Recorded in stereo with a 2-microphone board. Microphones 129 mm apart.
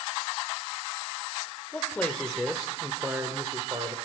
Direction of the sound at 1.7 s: 15° left (ahead or behind).